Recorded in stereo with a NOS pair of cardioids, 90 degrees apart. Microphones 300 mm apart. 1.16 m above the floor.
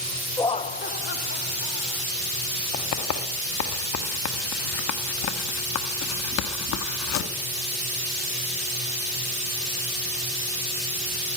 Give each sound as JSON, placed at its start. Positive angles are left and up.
{"t": 0.4, "sound": "laughter", "azimuth_deg": 10, "distance_m": 0.5}
{"t": 2.7, "sound": "writing", "azimuth_deg": 65, "distance_m": 1.6}